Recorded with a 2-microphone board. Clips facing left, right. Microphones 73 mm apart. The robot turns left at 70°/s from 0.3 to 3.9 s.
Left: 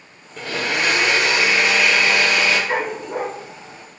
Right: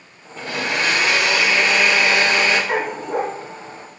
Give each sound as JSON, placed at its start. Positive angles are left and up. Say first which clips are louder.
{"t": 0.4, "sound": "a blender", "louder": "even", "azimuth_deg": 100, "distance_m": 6.5}
{"t": 2.7, "sound": "a dog barking", "louder": "right 1 dB", "azimuth_deg": -20, "distance_m": 3.0}